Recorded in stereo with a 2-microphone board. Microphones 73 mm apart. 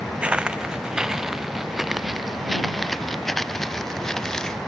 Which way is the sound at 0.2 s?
15° right (ahead or behind).